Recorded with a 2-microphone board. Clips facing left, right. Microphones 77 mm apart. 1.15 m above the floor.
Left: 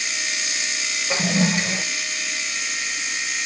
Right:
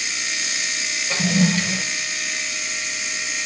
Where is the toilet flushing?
20° left (ahead or behind), 0.6 m.